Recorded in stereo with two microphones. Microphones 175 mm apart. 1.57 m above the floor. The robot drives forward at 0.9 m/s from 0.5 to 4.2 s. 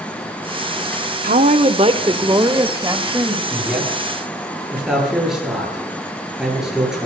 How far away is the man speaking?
About 9 m.